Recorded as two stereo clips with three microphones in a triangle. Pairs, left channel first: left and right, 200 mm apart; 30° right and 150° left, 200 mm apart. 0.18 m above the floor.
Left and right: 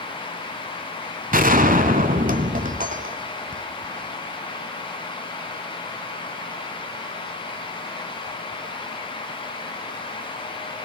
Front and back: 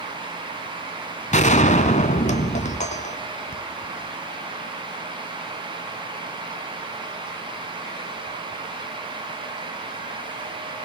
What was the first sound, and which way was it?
A gunshot, 65° right.